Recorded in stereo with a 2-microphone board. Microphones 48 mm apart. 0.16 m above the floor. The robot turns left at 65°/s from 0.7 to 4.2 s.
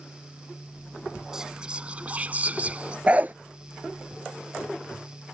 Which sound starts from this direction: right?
A dog barking, at 3.1 s.